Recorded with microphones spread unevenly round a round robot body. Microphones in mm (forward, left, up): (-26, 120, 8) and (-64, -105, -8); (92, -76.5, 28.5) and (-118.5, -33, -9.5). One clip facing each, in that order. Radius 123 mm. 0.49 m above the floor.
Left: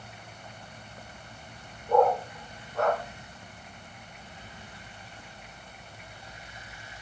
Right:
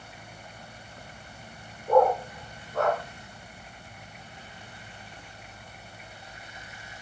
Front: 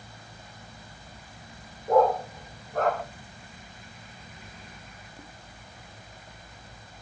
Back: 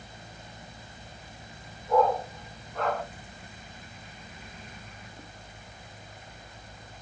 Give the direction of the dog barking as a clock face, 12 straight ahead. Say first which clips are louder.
Right 2 dB, front 3 dB; 2 o'clock.